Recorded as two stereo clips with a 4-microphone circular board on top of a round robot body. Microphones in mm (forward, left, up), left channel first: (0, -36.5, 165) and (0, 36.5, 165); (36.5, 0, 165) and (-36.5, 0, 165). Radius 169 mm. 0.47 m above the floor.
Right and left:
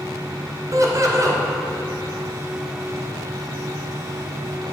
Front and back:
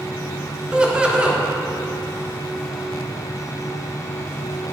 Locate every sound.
0.7 s laughter: 105° left, 1.7 m